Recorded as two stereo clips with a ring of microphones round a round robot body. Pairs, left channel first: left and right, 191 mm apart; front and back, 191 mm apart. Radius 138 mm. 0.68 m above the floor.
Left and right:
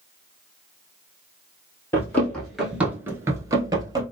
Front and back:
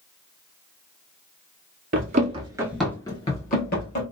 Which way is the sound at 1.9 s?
165° left.